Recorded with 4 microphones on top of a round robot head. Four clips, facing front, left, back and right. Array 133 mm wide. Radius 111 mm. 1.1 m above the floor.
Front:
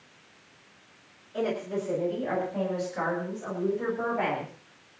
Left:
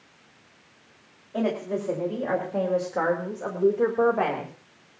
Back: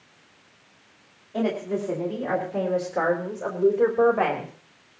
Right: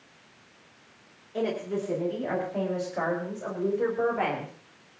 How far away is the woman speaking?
About 5.5 m.